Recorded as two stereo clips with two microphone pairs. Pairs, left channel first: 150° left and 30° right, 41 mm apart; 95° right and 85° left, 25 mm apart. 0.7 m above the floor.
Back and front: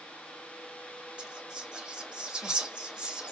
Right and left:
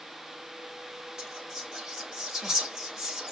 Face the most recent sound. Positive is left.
turn(degrees=30)